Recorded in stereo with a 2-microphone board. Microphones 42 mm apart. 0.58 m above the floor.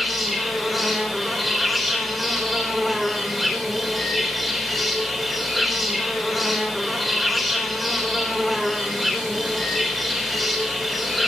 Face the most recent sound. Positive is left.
turn(degrees=0)  # may be behind; listen again after turning